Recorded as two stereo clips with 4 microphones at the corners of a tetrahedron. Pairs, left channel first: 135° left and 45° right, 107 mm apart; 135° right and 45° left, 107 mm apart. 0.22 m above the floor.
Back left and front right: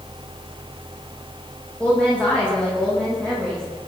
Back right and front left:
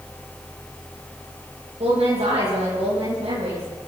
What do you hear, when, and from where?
1.8 s a woman speaking: 55° left, 9 m